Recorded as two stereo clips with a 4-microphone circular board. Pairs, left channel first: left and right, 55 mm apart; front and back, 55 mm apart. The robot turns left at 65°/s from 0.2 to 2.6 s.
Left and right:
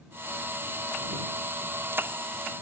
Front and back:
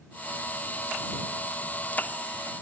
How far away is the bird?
I don't hear a bird.